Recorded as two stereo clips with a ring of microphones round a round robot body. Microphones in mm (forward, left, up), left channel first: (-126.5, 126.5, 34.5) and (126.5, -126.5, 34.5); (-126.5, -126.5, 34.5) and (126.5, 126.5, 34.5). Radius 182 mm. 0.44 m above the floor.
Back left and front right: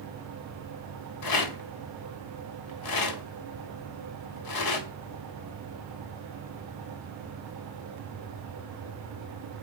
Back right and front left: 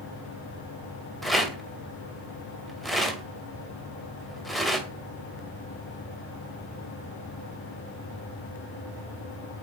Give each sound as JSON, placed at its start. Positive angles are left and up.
{"t": 1.2, "sound": "a rattle", "azimuth_deg": 135, "distance_m": 2.0}